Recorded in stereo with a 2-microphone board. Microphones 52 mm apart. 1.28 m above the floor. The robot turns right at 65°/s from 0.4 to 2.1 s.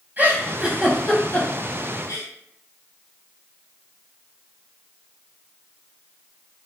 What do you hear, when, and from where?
0.2 s a giggle: 35° right (ahead or behind), 0.9 m; by 2.3 s 70° left (ahead or behind), 0.9 m